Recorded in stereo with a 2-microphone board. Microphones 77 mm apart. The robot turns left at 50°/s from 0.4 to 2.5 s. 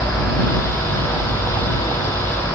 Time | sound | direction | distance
0.0 | a vehicle | 155° left | ?